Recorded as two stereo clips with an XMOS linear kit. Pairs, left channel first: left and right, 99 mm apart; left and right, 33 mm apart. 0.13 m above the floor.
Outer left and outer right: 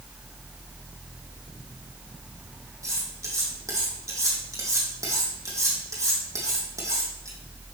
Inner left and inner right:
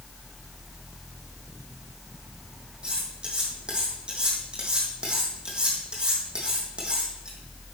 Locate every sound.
2.8 s cutlery clinking: 30° right (ahead or behind), 3.5 m